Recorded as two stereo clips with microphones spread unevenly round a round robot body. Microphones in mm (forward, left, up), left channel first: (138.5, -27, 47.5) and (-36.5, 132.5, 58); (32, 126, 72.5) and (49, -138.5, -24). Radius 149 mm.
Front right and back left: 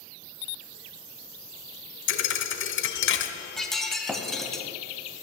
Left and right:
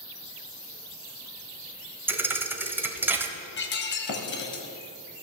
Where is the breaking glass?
45° left, 1.1 m.